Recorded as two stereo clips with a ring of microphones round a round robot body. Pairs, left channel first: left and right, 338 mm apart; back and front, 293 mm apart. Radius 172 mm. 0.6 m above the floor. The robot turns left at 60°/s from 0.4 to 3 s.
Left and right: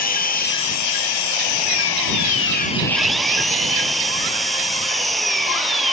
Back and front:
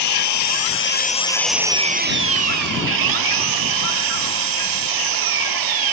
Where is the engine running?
155° left; by 5.9 s straight ahead.